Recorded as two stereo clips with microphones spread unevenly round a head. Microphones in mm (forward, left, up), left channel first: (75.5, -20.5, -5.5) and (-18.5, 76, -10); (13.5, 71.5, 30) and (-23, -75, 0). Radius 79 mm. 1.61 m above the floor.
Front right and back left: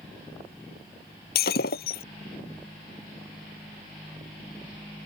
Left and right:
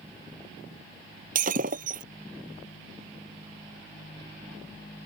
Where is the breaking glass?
60° right.